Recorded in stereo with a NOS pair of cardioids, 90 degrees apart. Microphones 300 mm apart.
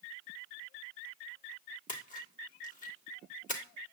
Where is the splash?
25° left, 1.5 m.